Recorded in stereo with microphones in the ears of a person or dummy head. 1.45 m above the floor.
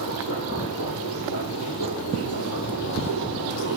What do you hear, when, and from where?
0.0 s a machine running: 80° left, 7 m